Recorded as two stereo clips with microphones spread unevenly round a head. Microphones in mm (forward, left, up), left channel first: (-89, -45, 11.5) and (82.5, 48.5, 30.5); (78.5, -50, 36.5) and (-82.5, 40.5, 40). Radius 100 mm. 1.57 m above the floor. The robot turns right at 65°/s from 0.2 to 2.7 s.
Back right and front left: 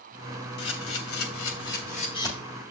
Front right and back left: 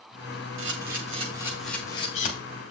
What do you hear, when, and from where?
0.6 s a camera shutter: 170° left, 3 m; by 2.3 s 75° right, 3 m